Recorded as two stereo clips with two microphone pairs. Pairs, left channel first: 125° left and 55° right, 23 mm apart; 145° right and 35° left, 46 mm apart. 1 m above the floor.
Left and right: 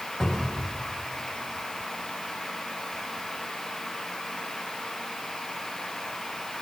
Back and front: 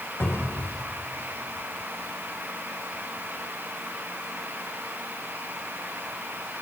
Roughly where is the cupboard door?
Behind.